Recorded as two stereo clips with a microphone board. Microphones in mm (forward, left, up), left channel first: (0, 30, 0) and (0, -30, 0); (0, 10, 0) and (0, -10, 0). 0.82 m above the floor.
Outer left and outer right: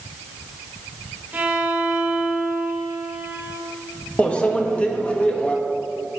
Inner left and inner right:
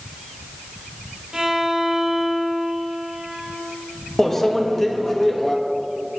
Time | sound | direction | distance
1.3 | a violin | 30° right (ahead or behind) | 1.0 m
4.2 | a microwave | 20° left (ahead or behind) | 0.6 m